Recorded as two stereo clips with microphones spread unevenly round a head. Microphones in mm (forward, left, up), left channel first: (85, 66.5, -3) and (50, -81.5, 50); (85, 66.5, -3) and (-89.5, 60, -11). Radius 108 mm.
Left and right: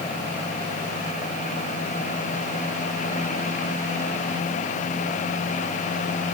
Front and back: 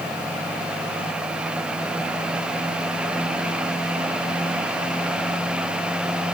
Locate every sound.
Only background noise.